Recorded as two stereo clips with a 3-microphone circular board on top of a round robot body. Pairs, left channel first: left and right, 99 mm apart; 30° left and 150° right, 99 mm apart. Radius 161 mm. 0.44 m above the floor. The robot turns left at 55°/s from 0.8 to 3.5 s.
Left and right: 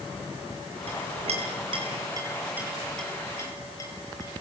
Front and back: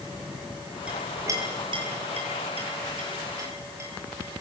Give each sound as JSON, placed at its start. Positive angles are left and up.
{"t": 0.9, "sound": "a clink", "azimuth_deg": -70, "distance_m": 8.5}